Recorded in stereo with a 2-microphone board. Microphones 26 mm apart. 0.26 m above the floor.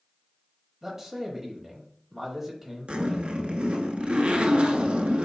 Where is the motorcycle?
I don't hear a motorcycle.